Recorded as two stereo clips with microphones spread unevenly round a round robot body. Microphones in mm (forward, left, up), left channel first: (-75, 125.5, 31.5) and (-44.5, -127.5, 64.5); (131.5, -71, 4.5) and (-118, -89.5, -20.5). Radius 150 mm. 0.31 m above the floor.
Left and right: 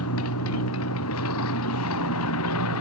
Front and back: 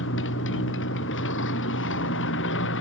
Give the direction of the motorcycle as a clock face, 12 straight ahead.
10 o'clock.